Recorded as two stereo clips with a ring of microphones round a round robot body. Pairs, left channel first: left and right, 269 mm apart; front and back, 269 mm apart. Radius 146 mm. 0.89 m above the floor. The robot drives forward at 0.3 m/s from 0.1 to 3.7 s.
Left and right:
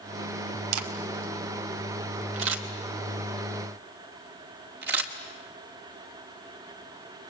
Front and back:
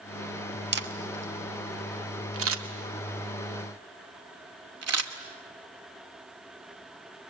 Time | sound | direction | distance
0.7 | a camera shutter | 130° right | 1.5 m